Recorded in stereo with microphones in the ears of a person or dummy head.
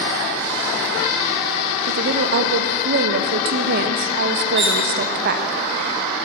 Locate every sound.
1.9 s a woman speaking: 50° right (ahead or behind), 0.9 m
4.5 s cutlery clinking: 20° right (ahead or behind), 1.0 m